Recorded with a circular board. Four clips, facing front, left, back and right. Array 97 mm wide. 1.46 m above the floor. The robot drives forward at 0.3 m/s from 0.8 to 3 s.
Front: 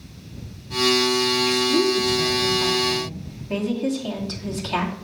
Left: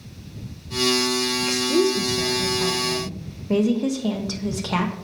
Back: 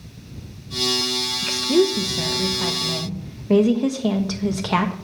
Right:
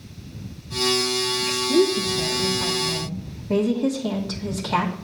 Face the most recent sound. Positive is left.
turn(degrees=170)